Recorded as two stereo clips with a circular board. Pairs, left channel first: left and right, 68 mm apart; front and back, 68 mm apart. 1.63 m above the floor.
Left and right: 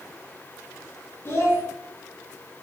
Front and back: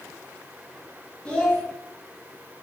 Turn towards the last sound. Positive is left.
turn(degrees=65)